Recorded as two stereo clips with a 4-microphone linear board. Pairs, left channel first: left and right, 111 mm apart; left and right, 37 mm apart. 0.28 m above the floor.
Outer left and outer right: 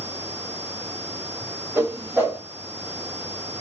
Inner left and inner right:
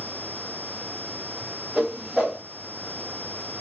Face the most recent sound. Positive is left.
turn(degrees=-20)  # may be behind; listen again after turning